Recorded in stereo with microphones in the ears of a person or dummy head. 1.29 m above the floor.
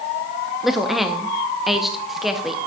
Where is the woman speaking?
Centre (ahead or behind), 0.6 m.